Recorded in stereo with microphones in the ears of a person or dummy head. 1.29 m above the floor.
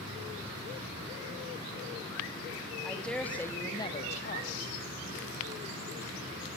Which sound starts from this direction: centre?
A woman speaking, at 2.8 s.